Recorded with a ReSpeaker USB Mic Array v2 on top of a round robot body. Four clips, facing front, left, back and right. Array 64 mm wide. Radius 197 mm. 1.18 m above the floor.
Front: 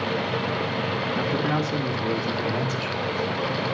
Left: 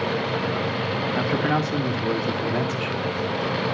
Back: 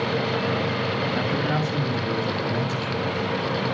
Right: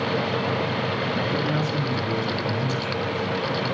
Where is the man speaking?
95° left, 3 m; by 3.2 s 80° left, 4 m.